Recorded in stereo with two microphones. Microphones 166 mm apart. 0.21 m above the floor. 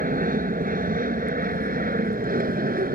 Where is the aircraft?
55° right (ahead or behind); by 2.9 s 60° right (ahead or behind).